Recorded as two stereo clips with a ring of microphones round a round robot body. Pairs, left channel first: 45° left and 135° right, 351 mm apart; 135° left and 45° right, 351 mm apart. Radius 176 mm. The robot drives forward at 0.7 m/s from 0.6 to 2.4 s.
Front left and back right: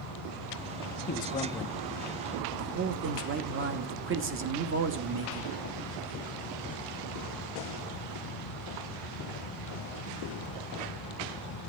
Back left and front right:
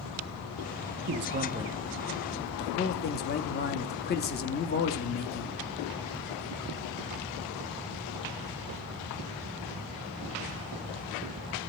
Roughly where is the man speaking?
Ahead.